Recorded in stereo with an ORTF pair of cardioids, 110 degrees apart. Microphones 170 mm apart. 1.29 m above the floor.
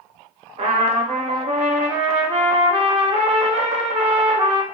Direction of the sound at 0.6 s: 40° right.